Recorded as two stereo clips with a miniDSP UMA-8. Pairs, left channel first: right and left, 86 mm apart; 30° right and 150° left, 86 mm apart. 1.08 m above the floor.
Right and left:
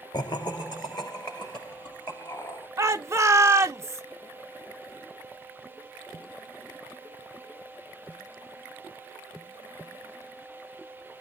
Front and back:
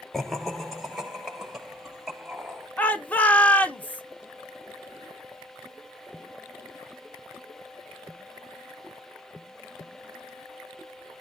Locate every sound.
0.1 s laughter: 115° right, 0.6 m; by 2.7 s 125° right, 2.5 m
2.8 s a shout: 40° left, 0.8 m